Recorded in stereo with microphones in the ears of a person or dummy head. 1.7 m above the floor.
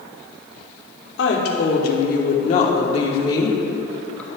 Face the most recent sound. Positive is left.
turn(degrees=10)  # may be behind; listen again after turning